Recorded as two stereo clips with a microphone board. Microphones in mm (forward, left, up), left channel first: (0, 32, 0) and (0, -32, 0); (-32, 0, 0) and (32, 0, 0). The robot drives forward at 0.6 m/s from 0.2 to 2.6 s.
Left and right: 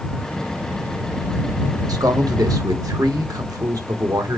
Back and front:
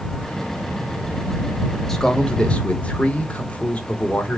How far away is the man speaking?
About 1.7 m.